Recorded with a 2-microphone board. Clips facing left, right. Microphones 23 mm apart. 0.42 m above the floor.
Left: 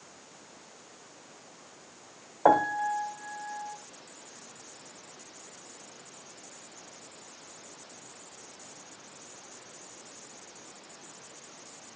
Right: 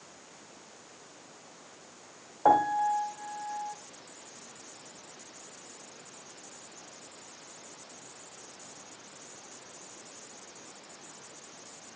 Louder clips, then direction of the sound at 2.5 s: Even; 20° left (ahead or behind).